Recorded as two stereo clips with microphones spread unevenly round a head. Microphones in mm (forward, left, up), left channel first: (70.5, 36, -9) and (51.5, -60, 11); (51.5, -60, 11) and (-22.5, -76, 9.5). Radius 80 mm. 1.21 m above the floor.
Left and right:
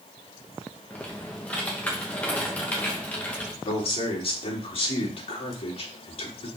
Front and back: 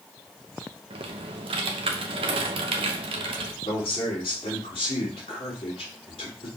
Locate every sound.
0.9 s typing on a keyboard: 160° left, 0.7 m
3.6 s a man speaking: 55° left, 2.5 m